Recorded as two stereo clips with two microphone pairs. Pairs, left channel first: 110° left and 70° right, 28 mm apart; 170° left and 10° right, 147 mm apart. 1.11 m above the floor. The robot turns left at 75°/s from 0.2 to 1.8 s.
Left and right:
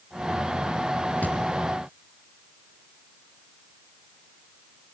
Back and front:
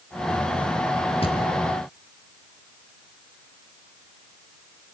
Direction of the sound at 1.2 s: 120° left.